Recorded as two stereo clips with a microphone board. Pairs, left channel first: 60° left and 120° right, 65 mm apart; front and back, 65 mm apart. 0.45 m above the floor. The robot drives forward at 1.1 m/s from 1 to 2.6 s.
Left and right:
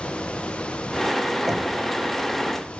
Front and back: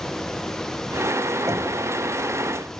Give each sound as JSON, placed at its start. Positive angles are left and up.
{"t": 1.5, "sound": "knocking", "azimuth_deg": 155, "distance_m": 1.4}